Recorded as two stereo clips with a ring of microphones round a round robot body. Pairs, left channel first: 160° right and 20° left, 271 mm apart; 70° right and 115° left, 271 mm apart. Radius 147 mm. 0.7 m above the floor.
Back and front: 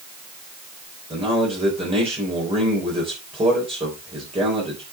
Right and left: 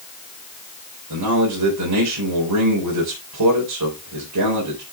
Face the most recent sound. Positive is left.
turn(degrees=95)